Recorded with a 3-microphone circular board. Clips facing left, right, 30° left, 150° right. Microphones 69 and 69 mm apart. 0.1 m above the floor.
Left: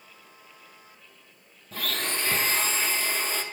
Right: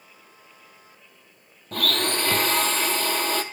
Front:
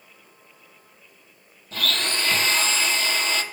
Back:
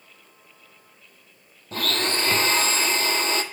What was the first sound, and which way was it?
A blender, 100° right.